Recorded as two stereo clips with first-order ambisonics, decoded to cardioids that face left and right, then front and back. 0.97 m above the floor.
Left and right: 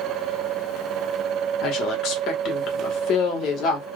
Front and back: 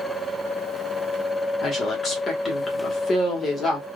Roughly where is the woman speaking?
Ahead left.